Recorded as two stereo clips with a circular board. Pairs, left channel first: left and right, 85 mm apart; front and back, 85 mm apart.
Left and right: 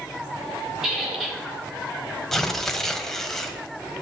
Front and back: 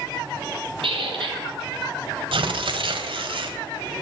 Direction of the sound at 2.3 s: 175° left.